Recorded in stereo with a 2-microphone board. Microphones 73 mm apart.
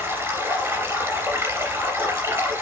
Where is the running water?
30° right (ahead or behind), 3 m.